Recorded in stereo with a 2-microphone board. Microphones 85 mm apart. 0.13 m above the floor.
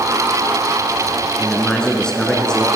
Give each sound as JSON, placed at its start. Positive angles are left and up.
{"t": 1.4, "sound": "a man speaking", "side_deg": 10, "distance_m": 1.2}